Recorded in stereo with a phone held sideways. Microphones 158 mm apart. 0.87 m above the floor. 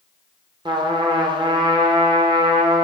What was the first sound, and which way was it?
A trumpet, 30° right (ahead or behind).